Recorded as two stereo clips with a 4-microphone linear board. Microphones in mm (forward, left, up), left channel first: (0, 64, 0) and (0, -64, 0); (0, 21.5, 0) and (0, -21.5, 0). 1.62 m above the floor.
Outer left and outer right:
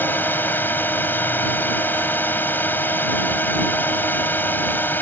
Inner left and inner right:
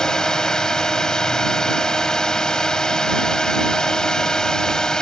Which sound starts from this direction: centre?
A drone, at 0.0 s.